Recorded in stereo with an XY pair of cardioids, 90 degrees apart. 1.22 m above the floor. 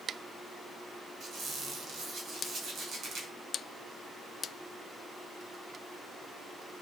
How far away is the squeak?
About 5 m.